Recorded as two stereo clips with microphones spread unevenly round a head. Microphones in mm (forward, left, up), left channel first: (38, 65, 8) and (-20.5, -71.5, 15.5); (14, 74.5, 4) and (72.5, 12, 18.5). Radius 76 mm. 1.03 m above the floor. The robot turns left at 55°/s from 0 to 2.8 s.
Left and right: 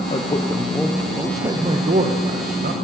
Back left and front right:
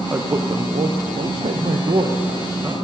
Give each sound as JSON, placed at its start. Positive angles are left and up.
{"t": 0.1, "sound": "a man speaking", "azimuth_deg": 25, "distance_m": 0.7}